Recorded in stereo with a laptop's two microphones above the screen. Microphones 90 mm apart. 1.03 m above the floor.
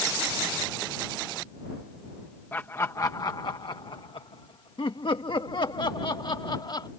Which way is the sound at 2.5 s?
25° left (ahead or behind).